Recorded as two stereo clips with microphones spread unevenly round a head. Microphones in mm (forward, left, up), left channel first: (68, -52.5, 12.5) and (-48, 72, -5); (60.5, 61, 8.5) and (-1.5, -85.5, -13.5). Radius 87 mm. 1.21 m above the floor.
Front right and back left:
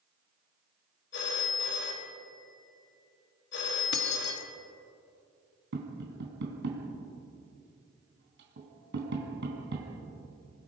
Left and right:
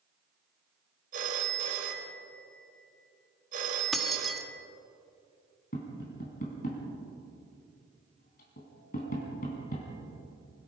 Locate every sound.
1.1 s a phone ringing: 75° right, 3.5 m
3.9 s keys jangling: 20° right, 1.6 m
5.7 s tapping: 110° left, 4 m